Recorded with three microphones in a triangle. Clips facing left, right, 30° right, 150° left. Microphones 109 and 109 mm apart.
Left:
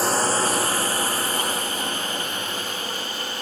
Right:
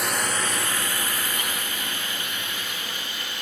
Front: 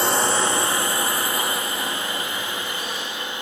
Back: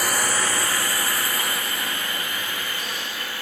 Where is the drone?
35° left; by 3.4 s 40° left.